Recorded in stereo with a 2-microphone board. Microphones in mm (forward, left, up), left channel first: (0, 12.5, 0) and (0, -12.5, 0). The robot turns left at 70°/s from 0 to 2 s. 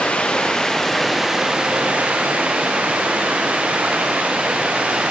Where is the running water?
70° left, 4.5 m; by 5.1 s 70° right, 4.5 m.